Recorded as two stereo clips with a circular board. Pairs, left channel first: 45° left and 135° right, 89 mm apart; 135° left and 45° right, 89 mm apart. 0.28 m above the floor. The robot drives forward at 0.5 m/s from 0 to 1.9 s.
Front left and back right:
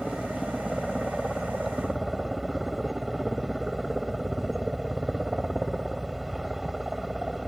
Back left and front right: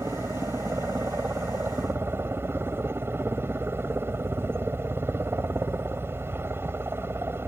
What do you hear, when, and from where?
0.0 s a helicopter: 40° right; by 7.5 s 50° right